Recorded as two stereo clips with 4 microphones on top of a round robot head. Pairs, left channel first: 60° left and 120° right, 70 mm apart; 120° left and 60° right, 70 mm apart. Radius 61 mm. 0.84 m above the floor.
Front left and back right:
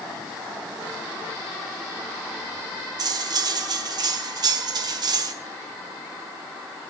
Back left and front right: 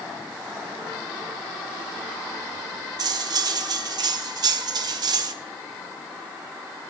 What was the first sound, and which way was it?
Cutlery clinking, 90° right.